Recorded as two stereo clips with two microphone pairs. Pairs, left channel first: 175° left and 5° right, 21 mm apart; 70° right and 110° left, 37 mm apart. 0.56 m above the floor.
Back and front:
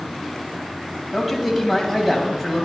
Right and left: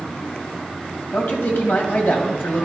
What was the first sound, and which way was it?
A man speaking, 85° right.